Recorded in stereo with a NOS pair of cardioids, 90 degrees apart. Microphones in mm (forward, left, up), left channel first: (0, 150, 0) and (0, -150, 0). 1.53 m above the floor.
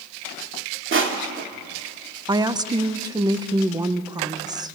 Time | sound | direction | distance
0.9 | crushing | 45° right | 2.5 m
2.3 | a woman speaking | 15° right | 1.3 m